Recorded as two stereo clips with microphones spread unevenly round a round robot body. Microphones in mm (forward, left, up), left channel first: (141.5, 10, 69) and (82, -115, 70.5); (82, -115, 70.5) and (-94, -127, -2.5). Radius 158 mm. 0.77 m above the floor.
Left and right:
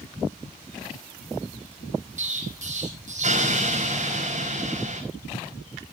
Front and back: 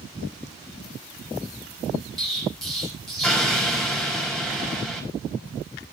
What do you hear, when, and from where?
2.2 s an explosion: 90° right, 4.5 m